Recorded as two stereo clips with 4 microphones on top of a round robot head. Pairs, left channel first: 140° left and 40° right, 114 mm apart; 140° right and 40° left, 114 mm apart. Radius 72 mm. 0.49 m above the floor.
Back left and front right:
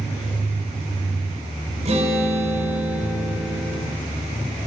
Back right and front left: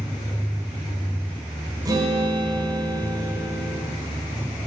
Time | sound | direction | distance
1.9 | a guitar | 15° right | 1.3 m